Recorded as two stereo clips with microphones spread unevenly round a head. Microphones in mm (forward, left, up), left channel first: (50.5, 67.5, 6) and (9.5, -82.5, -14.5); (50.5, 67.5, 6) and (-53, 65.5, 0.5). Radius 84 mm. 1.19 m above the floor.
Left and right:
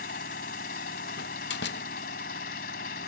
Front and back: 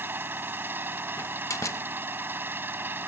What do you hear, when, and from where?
0.0 s an engine running: 110° left
1.2 s a door slam: 65° left